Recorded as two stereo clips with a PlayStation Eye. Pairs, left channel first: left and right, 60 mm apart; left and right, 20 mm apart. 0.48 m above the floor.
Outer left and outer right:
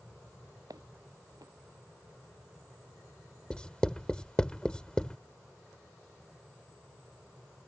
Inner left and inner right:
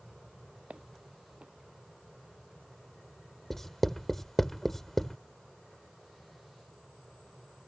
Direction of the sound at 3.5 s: 15° left (ahead or behind).